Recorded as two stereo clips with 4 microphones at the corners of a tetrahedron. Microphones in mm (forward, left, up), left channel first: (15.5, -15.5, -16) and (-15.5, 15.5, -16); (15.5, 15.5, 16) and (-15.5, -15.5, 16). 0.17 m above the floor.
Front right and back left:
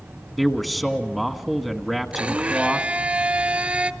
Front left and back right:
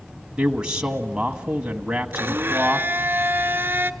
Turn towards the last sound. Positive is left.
turn(degrees=-170)